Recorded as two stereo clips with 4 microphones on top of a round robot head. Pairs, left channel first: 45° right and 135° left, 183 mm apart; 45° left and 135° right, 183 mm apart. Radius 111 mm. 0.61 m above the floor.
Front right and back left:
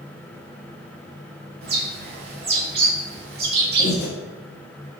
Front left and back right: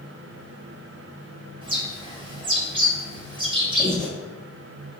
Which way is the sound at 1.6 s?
160° left.